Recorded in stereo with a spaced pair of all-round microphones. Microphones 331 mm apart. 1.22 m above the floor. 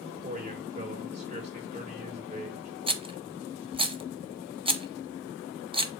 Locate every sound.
0.2 s a man speaking: 20° right (ahead or behind), 4.5 m
2.9 s a rattle: 15° right (ahead or behind), 0.9 m